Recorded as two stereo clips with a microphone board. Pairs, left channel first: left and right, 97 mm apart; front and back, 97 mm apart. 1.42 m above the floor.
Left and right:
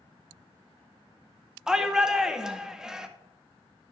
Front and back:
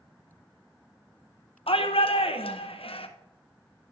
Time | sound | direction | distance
1.7 | a shout | 5° right | 0.8 m